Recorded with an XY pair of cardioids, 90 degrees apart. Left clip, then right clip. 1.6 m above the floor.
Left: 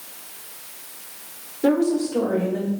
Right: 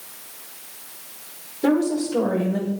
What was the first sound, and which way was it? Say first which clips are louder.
A woman speaking: left 1 dB; 60° right.